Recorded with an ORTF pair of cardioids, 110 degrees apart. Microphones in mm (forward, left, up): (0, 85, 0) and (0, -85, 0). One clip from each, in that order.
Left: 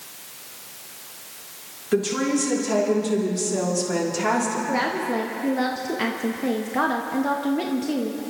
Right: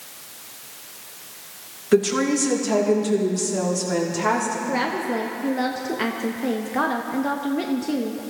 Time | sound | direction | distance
1.9 | a woman speaking | 30° right | 3 m
4.7 | a woman speaking | straight ahead | 1.0 m